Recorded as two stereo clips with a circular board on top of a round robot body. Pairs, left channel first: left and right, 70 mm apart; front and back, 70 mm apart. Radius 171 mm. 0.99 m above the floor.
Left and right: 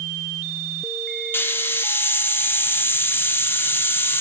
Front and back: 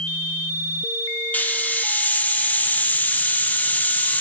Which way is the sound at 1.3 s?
50° left.